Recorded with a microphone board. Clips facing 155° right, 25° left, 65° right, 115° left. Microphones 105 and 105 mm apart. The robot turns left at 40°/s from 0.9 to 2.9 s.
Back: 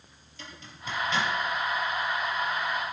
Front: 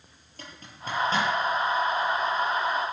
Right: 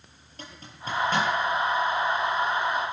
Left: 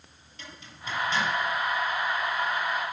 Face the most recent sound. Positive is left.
turn(degrees=-100)